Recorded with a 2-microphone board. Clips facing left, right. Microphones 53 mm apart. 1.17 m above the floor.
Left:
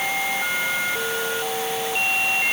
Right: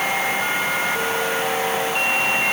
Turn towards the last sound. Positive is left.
No sound to turn to.